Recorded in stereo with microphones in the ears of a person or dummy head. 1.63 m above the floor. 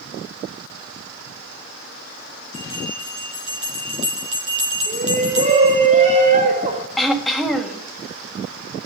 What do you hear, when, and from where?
2.5 s a bell: 35° right (ahead or behind), 5 m
4.9 s a shout: 45° right (ahead or behind), 5.5 m
7.0 s throat clearing: centre (ahead or behind), 1.7 m